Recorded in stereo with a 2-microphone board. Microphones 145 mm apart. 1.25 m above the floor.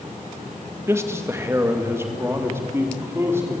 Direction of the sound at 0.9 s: 20° right (ahead or behind).